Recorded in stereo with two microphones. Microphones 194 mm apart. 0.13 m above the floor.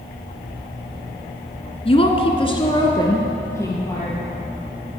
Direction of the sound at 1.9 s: 30° left (ahead or behind).